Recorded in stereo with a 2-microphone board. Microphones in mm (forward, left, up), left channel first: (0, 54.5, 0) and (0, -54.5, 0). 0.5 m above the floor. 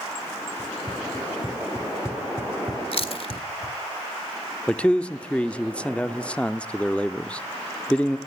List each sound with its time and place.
0.6 s running footsteps: 30° left (ahead or behind), 1.6 m; by 3.8 s 70° right (ahead or behind), 1.4 m
2.9 s chewing: 55° left (ahead or behind), 1.7 m
4.7 s a man speaking: 10° left (ahead or behind), 0.7 m